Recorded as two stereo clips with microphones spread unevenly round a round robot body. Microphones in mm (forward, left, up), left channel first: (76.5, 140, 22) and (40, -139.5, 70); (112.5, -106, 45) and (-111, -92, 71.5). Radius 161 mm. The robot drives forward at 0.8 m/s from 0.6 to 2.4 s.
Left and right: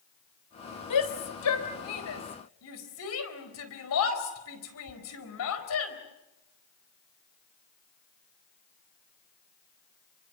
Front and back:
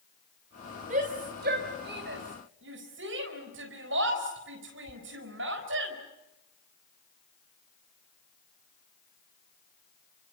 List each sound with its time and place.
0.9 s a shout: 110° left, 3.5 m; by 6.0 s 125° left, 4 m